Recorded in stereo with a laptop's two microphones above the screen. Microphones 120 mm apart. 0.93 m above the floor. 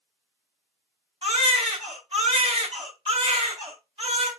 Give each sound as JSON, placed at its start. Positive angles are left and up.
{"t": 1.2, "sound": "a baby crying", "side_deg": -50, "distance_m": 2.5}